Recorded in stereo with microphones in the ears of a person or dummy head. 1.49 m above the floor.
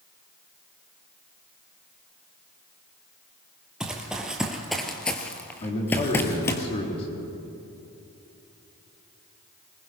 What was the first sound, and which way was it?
Running footsteps, 5° right (ahead or behind).